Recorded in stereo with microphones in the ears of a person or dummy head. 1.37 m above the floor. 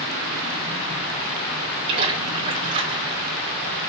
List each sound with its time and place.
1.9 s a splash: 55° right (ahead or behind), 2.5 m